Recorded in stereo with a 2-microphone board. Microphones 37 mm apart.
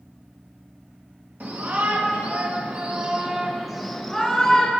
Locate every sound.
1.4 s a shout: 60° right (ahead or behind), 1.8 m; by 4.7 s 20° left (ahead or behind), 1.4 m